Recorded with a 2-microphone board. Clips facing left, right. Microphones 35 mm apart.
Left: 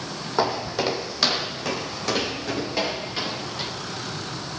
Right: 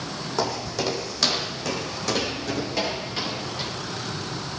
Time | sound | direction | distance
0.4 | footsteps | 20° left (ahead or behind) | 2.5 m